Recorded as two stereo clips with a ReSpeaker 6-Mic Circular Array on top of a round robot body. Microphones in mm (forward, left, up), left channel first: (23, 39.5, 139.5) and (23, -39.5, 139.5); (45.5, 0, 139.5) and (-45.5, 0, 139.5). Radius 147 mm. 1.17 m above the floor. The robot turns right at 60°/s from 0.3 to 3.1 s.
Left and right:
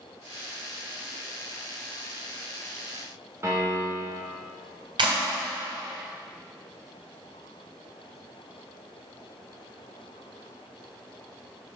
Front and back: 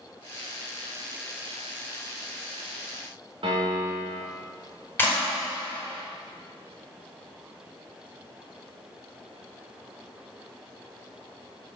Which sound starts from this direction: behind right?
A piano, at 3.4 s.